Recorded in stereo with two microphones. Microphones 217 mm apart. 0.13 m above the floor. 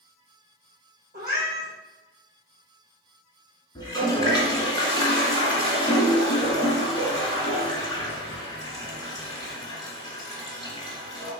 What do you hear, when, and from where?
1.1 s a cat meowing: 45° right (ahead or behind), 2.0 m
3.8 s a toilet flushing: 20° left (ahead or behind), 1.4 m